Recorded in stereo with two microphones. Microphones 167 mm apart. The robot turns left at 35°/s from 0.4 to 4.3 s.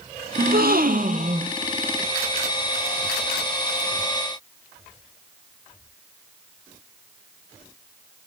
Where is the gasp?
95° right, 0.9 m; by 1.5 s 135° right, 0.9 m.